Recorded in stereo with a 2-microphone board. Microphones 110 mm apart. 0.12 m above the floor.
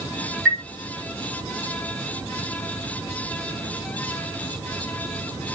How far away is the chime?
About 1.1 m.